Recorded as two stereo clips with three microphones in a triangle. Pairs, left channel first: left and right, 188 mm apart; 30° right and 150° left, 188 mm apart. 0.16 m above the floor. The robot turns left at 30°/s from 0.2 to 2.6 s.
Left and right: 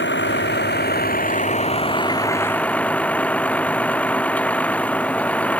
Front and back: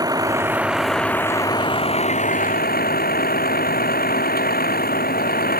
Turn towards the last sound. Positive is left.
turn(degrees=5)